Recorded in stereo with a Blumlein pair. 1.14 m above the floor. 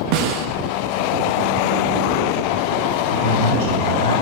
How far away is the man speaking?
About 3 m.